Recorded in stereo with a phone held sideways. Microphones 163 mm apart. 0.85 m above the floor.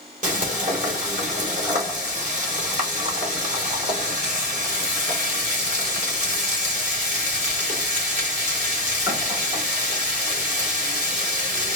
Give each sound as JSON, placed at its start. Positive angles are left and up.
{"t": 0.2, "sound": "frying", "side_deg": -50, "distance_m": 2.5}